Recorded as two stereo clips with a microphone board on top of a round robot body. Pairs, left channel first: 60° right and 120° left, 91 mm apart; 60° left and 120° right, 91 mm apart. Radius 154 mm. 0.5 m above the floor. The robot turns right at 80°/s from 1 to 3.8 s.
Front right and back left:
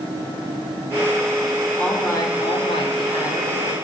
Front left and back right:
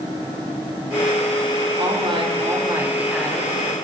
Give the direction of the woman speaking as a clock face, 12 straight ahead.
5 o'clock.